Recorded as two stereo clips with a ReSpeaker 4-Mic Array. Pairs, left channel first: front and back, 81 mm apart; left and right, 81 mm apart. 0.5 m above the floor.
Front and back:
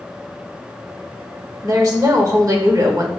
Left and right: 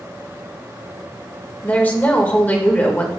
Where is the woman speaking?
155° left, 1.8 m.